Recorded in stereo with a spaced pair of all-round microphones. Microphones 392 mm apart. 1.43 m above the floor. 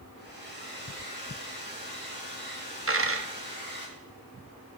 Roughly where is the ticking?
No ticking in this recording.